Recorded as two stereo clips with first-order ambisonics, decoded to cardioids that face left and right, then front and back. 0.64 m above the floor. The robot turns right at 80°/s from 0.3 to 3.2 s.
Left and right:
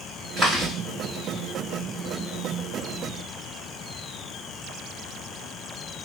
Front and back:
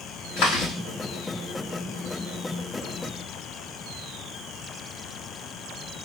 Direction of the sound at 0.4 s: 25° right.